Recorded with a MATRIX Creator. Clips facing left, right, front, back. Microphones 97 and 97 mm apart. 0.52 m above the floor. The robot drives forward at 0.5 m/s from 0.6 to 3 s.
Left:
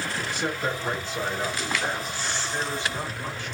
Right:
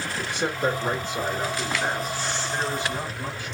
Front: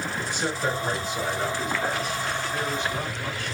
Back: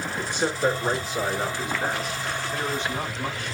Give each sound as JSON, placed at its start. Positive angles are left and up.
{"t": 0.2, "sound": "a man speaking", "azimuth_deg": -130, "distance_m": 1.0}